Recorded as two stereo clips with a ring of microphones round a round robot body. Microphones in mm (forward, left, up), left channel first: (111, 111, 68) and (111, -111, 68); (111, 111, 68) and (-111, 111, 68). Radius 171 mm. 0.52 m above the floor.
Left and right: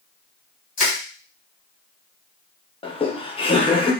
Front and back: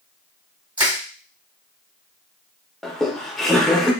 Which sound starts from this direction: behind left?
Crushing, at 0.8 s.